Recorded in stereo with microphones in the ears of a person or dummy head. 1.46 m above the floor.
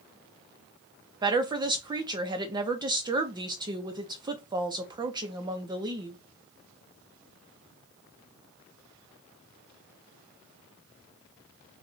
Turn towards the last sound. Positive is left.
turn(degrees=-25)  # may be behind; listen again after turning